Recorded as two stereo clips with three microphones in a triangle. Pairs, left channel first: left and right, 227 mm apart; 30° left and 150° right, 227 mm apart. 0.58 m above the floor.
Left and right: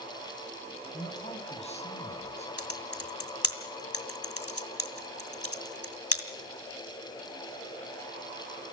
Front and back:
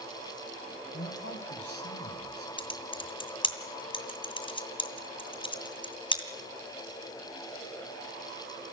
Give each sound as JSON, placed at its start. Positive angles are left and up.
{"t": 0.9, "sound": "a man speaking", "azimuth_deg": 30, "distance_m": 3.5}
{"t": 2.6, "sound": "typing on a keyboard", "azimuth_deg": 95, "distance_m": 2.0}